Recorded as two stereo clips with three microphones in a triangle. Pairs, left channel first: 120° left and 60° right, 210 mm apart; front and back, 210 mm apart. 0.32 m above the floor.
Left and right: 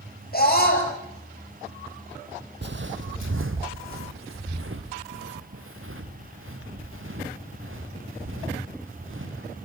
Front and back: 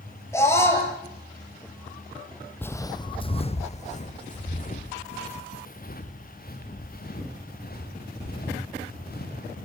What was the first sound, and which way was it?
A scream, 75° left.